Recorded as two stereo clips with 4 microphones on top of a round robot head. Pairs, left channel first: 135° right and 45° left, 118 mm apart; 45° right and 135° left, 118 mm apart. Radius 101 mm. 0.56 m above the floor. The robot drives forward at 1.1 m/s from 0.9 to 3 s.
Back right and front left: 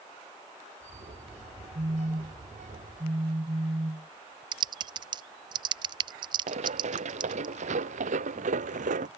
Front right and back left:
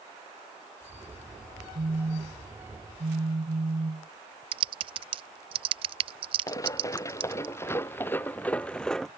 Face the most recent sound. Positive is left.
turn(degrees=45)